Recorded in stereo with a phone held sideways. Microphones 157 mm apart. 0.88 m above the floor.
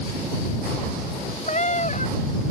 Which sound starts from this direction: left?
A cat meowing, at 1.5 s.